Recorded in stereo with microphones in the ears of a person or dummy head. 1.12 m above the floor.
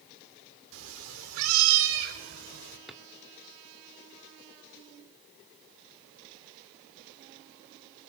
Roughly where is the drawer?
Centre.